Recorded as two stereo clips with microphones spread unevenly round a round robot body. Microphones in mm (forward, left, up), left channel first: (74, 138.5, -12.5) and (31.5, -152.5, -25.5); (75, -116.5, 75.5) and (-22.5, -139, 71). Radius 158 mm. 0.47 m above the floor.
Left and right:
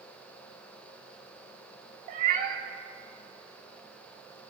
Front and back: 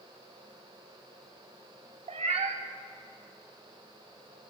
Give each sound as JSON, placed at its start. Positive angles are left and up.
{"t": 2.1, "sound": "a cat meowing", "azimuth_deg": -165, "distance_m": 0.6}